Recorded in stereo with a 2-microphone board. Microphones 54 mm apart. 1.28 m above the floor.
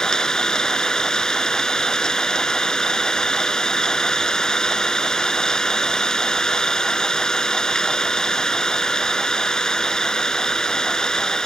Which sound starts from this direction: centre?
An engine running, at 0.0 s.